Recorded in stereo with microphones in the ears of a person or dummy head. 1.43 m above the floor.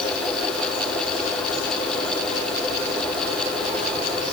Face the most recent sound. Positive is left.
No sound to turn to.